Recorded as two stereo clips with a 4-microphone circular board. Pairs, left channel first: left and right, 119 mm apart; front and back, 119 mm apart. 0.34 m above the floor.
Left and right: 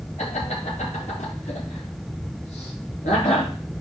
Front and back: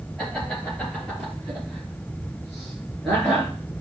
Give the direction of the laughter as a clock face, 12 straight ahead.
9 o'clock.